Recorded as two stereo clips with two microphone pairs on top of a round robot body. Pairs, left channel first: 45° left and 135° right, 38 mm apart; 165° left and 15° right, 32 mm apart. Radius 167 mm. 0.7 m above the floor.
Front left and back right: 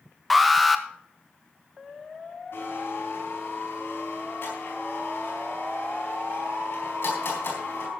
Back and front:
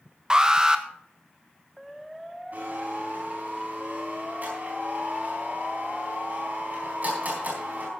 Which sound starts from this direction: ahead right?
An alarm, at 0.3 s.